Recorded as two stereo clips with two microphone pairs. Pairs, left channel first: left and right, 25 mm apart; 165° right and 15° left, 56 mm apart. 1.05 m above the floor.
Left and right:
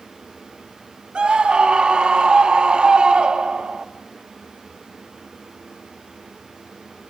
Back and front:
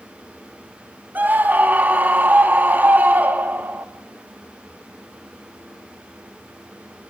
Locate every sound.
1.1 s a scream: 45° right, 1.6 m